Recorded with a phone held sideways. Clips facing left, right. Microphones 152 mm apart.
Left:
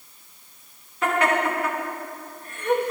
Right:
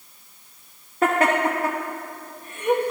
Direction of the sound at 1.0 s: 50° right (ahead or behind).